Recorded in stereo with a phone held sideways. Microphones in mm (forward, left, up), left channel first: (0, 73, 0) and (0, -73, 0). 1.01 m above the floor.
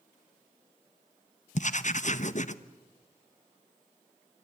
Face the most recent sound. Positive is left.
turn(degrees=55)  # may be behind; listen again after turning